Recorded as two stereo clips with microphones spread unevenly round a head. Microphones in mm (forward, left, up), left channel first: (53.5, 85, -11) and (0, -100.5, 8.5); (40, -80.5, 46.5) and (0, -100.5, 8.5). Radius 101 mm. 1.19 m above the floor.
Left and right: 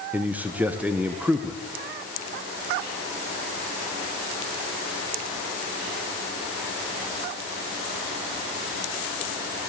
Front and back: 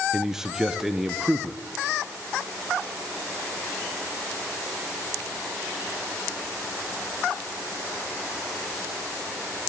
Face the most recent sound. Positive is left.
turn(degrees=170)